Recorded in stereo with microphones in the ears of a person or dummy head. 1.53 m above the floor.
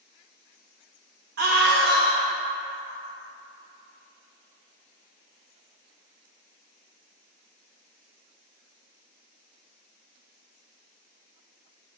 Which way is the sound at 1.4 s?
60° right (ahead or behind).